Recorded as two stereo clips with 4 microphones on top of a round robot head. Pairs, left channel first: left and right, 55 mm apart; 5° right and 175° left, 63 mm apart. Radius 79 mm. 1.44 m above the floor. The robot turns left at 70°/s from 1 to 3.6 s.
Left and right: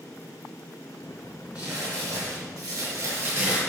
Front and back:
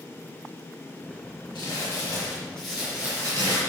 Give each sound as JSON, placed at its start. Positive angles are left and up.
{"t": 1.6, "sound": "crumpling", "azimuth_deg": -15, "distance_m": 5.5}